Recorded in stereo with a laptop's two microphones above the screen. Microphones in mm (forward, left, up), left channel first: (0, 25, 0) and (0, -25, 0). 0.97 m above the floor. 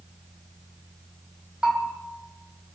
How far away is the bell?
About 4.5 m.